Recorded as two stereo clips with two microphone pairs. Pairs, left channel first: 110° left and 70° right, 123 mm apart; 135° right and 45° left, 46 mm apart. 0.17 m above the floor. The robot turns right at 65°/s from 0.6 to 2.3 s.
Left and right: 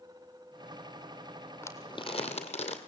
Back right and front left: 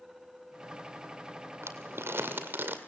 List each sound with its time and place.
1.6 s crumpling: 40° left, 2.5 m; by 2.8 s 85° left, 2.5 m